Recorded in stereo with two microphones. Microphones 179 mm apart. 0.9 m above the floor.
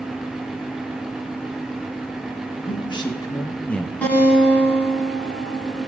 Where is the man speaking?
30° left (ahead or behind), 1.7 m; by 3.9 s 5° left (ahead or behind), 1.0 m.